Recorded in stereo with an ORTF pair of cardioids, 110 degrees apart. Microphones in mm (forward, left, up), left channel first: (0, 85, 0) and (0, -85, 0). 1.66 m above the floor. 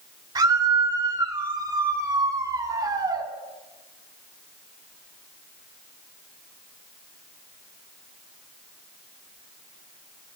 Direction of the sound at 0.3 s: 25° right.